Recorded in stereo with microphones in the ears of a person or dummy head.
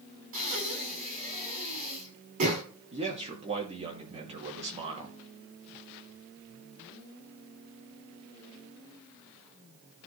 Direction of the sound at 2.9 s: 30° right (ahead or behind).